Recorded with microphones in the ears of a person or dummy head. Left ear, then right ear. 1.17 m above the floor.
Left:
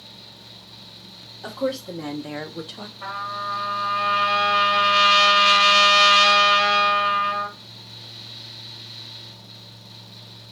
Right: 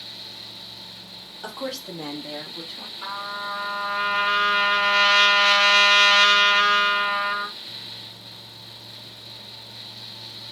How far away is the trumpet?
About 1.3 m.